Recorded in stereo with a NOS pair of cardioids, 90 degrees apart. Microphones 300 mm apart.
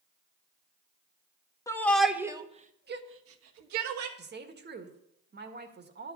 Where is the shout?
10° left, 1.5 m; by 4.1 s 75° right, 1.7 m.